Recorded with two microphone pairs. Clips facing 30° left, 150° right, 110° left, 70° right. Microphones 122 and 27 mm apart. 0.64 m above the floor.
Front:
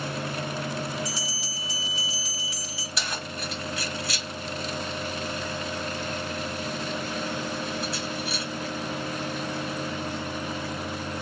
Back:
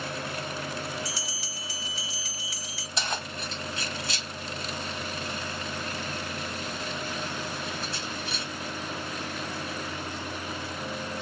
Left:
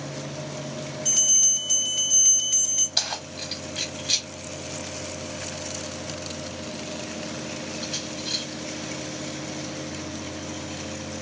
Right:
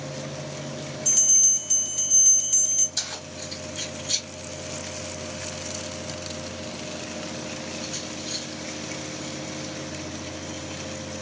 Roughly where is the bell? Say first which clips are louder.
Front 3 dB, even; left.